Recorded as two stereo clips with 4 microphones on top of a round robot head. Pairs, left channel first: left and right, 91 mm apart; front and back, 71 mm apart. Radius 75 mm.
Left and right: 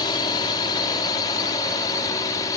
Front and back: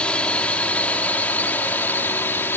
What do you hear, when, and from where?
0.0 s a drone: 65° left; by 2.6 s 50° left